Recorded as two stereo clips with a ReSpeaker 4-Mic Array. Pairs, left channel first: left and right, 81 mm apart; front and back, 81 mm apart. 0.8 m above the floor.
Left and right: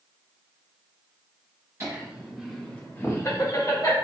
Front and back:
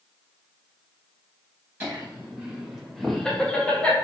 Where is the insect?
No insect in this recording.